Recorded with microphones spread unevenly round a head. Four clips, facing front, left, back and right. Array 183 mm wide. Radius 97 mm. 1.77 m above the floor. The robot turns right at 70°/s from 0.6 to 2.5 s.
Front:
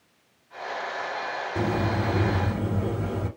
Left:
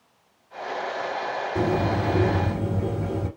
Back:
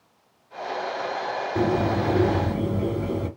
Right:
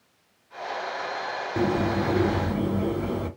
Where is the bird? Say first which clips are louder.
Even, back 4 dB; 135° left, 2 m; by 3.3 s 155° right, 2 m.